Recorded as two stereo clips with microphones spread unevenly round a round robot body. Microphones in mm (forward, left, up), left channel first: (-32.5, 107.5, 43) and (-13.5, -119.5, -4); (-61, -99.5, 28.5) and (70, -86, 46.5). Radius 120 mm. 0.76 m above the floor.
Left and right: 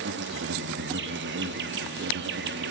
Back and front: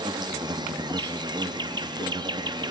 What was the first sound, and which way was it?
An insect, 55° right.